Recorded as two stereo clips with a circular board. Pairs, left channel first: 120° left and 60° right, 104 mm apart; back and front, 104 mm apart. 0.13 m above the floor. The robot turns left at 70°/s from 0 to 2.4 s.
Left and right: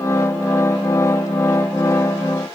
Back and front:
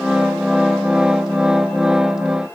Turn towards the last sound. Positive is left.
No sound to turn to.